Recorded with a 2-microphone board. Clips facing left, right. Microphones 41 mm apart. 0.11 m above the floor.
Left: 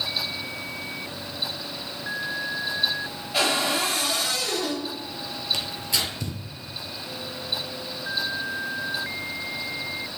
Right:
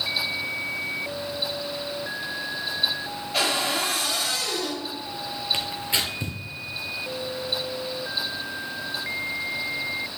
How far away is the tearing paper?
About 1.2 m.